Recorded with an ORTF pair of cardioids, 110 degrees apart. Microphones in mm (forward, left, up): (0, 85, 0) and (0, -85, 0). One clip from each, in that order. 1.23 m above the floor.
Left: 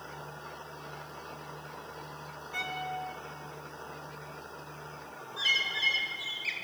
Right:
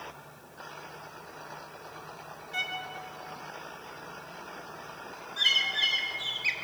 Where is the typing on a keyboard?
I don't hear typing on a keyboard.